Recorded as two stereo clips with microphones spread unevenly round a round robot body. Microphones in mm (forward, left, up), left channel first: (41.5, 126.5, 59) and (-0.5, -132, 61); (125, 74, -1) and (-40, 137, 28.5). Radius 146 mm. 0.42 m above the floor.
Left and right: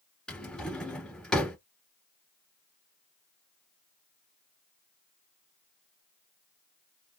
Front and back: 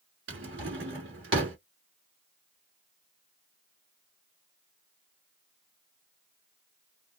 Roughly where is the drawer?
Behind.